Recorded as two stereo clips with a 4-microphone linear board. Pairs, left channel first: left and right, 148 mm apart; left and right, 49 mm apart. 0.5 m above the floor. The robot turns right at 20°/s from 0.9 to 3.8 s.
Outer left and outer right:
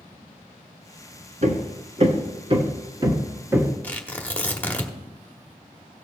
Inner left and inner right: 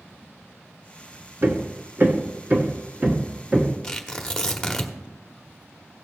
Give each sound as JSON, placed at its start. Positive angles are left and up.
{"t": 1.4, "sound": "hammering", "side_deg": -60, "distance_m": 1.4}
{"t": 3.8, "sound": "tearing paper", "side_deg": 10, "distance_m": 1.3}